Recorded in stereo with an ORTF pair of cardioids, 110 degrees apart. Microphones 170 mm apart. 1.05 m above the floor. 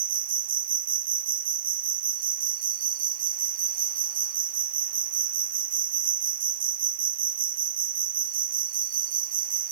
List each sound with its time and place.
0.0 s an insect: 55° right